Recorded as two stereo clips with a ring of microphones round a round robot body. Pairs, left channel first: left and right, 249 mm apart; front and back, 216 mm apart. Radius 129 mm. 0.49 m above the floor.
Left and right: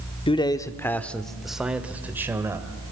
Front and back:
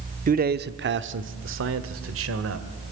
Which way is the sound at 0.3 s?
150° left.